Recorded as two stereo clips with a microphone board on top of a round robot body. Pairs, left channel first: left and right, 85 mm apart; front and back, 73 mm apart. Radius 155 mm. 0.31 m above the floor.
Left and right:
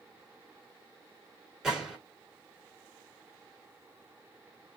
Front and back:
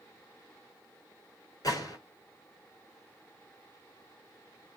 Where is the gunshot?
5° right, 2 m.